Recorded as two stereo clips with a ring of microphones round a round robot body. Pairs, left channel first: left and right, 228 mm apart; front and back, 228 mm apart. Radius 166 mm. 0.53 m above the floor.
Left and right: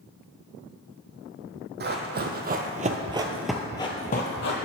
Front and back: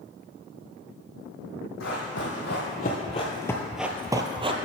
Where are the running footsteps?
50° right, 1.2 m; by 4.5 s 120° left, 0.7 m.